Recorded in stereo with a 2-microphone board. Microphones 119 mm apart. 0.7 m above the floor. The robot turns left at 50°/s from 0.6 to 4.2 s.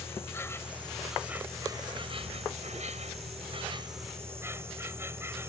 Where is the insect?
20° left; by 5.5 s 160° right.